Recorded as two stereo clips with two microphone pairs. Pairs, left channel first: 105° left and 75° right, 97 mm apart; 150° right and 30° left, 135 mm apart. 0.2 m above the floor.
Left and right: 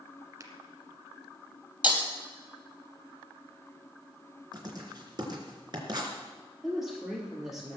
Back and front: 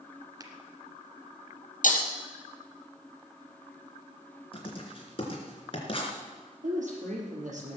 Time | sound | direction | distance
0.4 | a finger snap | 30° right | 1.6 m
1.8 | breaking glass | 150° right | 3 m
4.5 | writing | 110° right | 3 m
6.6 | a woman speaking | 10° left | 5.5 m